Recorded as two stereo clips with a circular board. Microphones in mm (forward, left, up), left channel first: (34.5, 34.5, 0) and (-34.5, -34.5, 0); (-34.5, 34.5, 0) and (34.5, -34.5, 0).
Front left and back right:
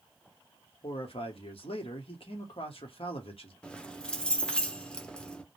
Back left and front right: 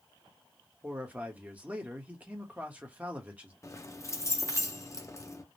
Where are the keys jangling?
120° left, 0.5 m.